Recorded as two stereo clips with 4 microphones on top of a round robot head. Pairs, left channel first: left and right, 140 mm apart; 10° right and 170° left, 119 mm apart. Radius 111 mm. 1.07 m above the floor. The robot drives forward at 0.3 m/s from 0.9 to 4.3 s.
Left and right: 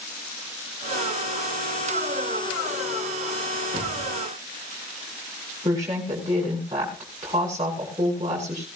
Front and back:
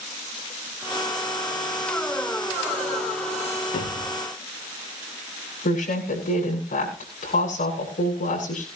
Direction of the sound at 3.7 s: 35° right.